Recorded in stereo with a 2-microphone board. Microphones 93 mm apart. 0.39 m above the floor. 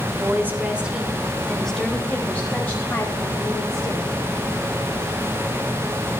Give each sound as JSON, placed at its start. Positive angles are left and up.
{"t": 0.1, "sound": "a woman speaking", "side_deg": -30, "distance_m": 1.4}